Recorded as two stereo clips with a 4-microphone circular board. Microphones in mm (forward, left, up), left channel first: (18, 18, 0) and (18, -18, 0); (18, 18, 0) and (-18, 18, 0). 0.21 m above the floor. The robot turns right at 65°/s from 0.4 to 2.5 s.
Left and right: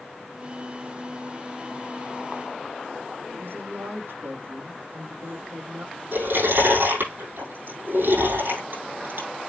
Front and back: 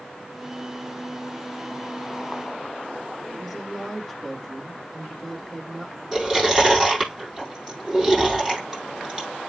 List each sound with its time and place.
3.3 s a woman speaking: 90° right, 7 m
6.1 s chewing: 95° right, 7 m